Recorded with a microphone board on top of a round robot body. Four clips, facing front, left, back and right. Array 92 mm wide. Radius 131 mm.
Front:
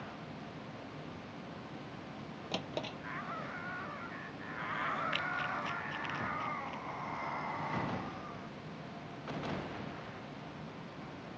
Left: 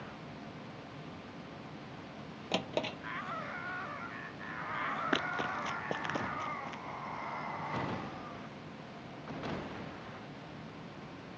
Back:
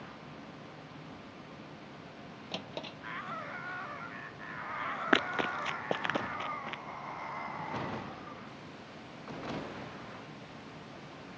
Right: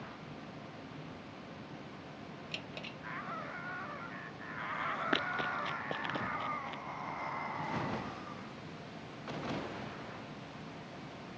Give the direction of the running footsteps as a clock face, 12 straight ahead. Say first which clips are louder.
Even, back 6 dB; 6 o'clock.